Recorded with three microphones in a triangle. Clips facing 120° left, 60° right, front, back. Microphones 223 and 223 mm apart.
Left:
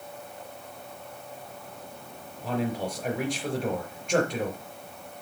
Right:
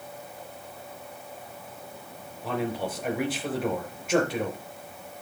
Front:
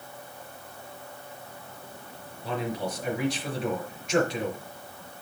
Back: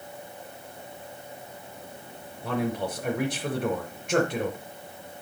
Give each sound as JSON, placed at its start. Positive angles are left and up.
{"t": 2.4, "sound": "a man speaking", "azimuth_deg": -145, "distance_m": 5.0}